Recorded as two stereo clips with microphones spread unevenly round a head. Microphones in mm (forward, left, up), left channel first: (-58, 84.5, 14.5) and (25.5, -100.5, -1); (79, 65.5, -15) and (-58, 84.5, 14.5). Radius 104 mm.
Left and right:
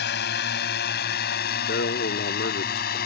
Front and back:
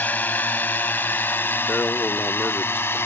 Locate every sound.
0.0 s a drone: 70° left; by 3.1 s 65° left
1.7 s a man speaking: 70° left